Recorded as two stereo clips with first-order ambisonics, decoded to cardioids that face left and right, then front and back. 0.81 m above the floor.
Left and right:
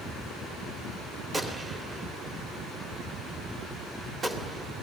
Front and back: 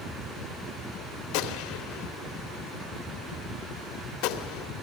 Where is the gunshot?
10° right, 2 m.